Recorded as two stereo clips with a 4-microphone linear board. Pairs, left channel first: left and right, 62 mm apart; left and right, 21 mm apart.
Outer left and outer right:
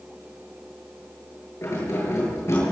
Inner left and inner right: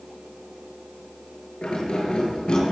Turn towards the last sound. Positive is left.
turn(degrees=45)  # may be behind; listen again after turning